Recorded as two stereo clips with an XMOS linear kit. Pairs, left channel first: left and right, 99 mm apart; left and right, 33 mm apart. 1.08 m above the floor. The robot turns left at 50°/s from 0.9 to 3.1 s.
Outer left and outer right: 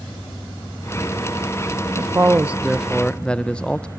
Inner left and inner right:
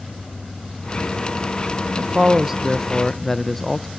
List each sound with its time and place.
2.0 s a man speaking: 135° right, 0.6 m; by 3.9 s 165° left, 0.6 m